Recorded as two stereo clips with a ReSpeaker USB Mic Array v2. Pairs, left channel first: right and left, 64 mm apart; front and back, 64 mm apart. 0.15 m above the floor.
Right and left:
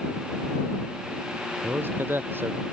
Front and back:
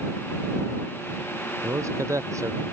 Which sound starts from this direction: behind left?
A man speaking, at 1.6 s.